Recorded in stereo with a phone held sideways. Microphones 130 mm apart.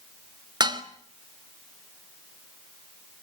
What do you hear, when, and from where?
0.6 s dishes clattering: 35° right (ahead or behind), 1.8 m